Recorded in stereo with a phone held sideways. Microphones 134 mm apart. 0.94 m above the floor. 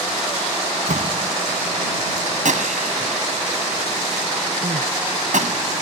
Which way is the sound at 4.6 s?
75° right (ahead or behind).